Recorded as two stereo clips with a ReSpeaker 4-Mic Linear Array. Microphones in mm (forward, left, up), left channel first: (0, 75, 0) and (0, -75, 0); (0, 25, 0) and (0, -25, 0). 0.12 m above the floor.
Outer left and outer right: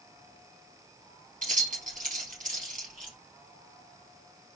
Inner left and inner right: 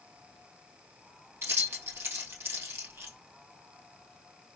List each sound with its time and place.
1.4 s keys jangling: 60° right (ahead or behind), 1.6 m